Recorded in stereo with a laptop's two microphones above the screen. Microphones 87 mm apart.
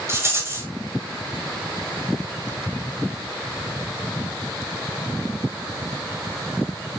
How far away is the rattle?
About 4 m.